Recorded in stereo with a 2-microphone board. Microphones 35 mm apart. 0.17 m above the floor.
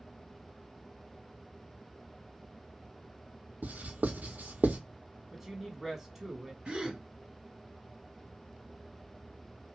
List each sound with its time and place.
3.6 s writing: 55° right (ahead or behind), 0.9 m
5.3 s a woman speaking: 10° right (ahead or behind), 1.0 m
6.7 s a gasp: 30° right (ahead or behind), 2.5 m